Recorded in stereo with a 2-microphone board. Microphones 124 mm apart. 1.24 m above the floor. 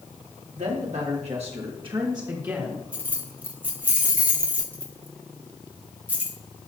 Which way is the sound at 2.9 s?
10° right (ahead or behind).